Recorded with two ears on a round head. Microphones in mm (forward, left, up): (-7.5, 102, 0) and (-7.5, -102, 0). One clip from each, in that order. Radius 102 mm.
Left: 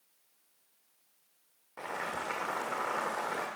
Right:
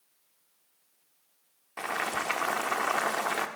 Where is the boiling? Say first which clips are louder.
Right 6 dB; 80° right, 1.0 m.